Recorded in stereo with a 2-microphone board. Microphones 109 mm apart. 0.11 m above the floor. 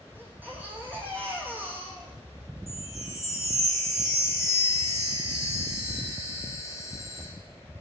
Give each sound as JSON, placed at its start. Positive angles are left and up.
{"t": 0.1, "sound": "a baby crying", "side_deg": -15, "distance_m": 3.0}
{"t": 2.7, "sound": "a chime", "side_deg": 30, "distance_m": 7.5}